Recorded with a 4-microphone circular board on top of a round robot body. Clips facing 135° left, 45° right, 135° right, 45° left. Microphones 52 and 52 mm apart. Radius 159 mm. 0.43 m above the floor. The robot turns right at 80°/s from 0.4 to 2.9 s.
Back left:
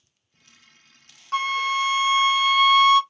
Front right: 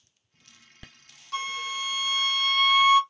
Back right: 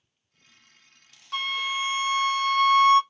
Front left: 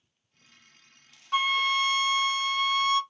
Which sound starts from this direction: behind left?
A flute, at 1.3 s.